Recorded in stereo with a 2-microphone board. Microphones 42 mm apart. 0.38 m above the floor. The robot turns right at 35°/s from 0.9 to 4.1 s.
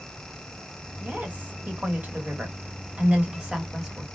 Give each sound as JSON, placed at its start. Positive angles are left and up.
{"t": 1.0, "sound": "a woman speaking", "azimuth_deg": -115, "distance_m": 1.2}